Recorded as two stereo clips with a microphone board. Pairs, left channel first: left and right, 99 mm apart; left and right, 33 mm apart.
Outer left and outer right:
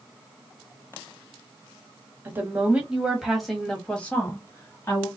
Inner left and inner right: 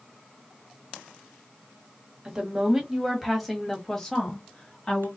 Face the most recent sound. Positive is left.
turn(degrees=30)  # may be behind; listen again after turning